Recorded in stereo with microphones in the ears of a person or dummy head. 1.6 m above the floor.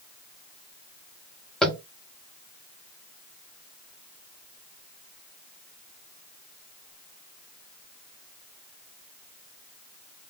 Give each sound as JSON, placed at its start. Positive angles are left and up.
{"t": 1.6, "sound": "tapping", "side_deg": 5, "distance_m": 0.8}